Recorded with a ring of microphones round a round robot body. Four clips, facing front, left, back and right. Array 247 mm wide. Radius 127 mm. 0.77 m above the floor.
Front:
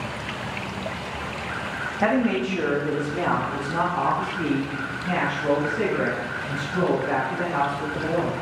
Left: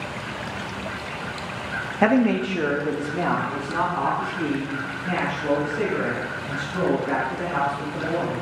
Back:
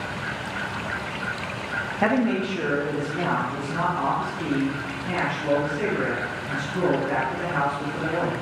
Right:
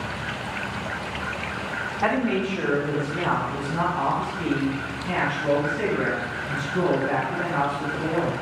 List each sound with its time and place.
2.0 s a man speaking: 95° left, 1.0 m; by 8.3 s 50° left, 6 m